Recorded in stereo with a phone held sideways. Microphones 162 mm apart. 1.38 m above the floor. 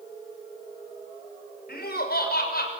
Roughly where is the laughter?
Left.